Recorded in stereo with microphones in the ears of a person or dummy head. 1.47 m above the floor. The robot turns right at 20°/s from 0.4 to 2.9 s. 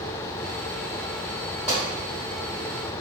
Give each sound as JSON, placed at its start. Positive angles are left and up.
{"t": 1.7, "sound": "a pop", "side_deg": -10, "distance_m": 1.3}